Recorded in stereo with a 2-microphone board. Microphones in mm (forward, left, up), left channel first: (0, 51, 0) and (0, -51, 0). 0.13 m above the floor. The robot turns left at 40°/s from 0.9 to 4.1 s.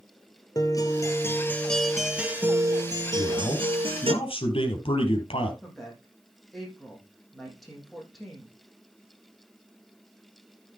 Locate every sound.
0.6 s a guitar: 40° left, 1.3 m; by 4.1 s 90° right, 1.3 m
3.1 s a man speaking: 120° left, 3.5 m; by 5.5 s 80° left, 3.5 m
5.6 s a woman speaking: centre (ahead or behind), 6 m